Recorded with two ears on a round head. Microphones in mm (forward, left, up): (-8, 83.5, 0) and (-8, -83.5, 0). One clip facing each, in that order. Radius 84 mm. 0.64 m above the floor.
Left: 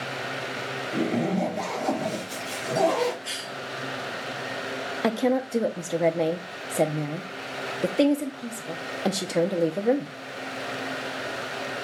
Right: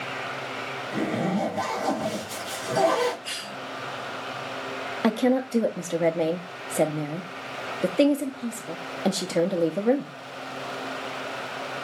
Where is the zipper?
10° right (ahead or behind), 3 m.